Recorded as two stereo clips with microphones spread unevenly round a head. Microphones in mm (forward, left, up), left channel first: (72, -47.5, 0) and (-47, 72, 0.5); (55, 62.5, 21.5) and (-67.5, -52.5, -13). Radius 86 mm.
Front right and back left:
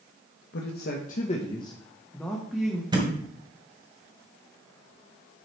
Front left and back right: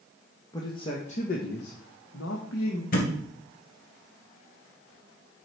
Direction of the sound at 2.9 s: 70° left.